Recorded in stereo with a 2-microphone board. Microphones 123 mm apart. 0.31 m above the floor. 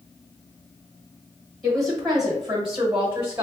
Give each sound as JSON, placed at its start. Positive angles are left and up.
{"t": 1.6, "sound": "a woman speaking", "side_deg": 5, "distance_m": 1.2}